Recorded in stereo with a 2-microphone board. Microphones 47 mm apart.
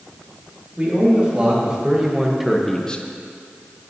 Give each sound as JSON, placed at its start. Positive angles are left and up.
{"t": 0.8, "sound": "a man speaking", "side_deg": -30, "distance_m": 2.5}